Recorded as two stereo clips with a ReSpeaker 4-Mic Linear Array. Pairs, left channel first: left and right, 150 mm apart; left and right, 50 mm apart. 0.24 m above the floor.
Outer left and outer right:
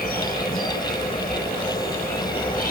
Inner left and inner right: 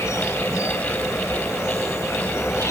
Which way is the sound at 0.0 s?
75° left (ahead or behind).